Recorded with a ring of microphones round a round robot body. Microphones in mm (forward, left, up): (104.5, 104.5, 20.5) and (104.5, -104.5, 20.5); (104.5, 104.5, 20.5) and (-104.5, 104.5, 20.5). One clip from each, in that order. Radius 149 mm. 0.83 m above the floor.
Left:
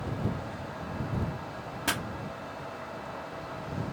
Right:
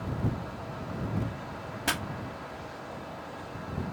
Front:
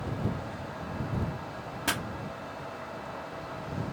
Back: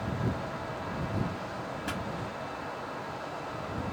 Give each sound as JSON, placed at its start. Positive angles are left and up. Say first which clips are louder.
{"t": 1.9, "sound": "a pop", "louder": "even, front 8 dB", "azimuth_deg": -5}